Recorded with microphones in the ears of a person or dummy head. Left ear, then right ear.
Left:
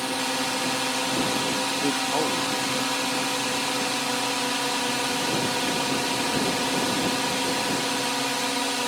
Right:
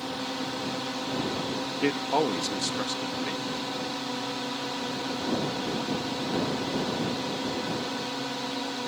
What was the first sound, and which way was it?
A drone, 55° left (ahead or behind).